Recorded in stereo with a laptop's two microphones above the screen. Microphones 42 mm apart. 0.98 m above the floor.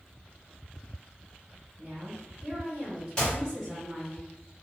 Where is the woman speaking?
50° right (ahead or behind), 1.4 m; by 4.2 s 10° left (ahead or behind), 1.3 m.